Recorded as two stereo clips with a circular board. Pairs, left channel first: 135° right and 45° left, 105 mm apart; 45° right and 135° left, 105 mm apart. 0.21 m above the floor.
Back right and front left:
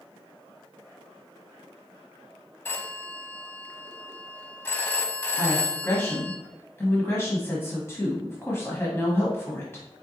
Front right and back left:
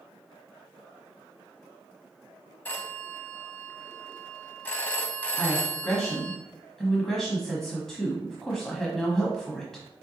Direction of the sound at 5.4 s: 125° right.